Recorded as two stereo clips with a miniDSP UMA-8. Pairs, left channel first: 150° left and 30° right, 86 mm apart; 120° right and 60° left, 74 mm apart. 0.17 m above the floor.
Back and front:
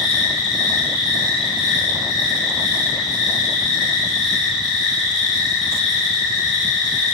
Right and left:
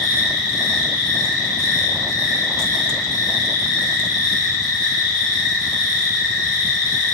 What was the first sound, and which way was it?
An insect, 115° right.